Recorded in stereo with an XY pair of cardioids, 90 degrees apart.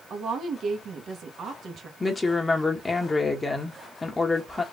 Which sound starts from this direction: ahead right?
A woman speaking, at 0.1 s.